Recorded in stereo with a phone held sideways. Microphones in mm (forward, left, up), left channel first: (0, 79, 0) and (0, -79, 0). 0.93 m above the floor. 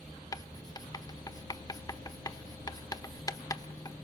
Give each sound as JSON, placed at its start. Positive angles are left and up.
{"t": 0.3, "sound": "writing", "side_deg": 25, "distance_m": 1.0}